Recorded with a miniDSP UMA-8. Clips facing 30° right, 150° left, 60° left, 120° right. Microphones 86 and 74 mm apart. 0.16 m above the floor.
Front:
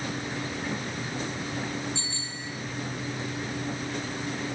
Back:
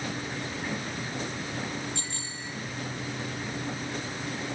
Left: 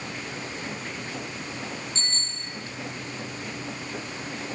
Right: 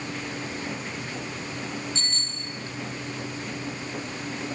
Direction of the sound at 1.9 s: 115° left.